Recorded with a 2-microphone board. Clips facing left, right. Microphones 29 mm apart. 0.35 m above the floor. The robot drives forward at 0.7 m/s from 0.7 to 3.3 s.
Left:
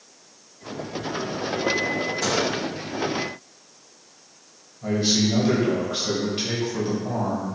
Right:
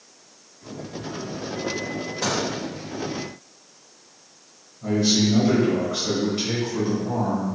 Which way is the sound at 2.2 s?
20° right (ahead or behind).